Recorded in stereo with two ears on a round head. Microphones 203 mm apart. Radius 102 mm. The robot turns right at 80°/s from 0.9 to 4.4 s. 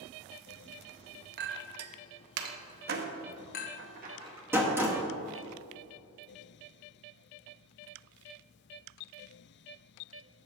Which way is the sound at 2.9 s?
45° right (ahead or behind).